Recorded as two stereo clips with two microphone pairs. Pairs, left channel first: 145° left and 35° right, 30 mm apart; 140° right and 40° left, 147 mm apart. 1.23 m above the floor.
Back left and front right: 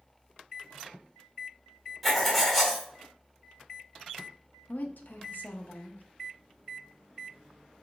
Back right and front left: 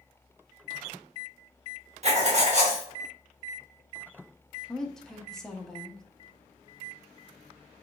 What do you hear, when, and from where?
2.0 s writing: 65° left, 1.0 m
4.7 s a woman speaking: 130° left, 0.7 m